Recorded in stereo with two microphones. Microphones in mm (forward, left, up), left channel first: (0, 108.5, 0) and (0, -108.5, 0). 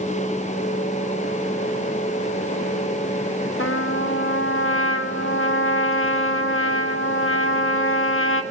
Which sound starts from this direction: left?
A trumpet, at 3.6 s.